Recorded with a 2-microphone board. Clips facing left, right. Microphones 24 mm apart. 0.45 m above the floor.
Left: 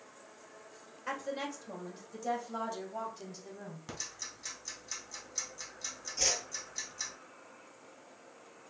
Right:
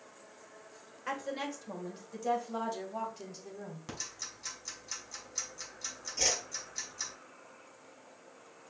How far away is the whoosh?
About 3 m.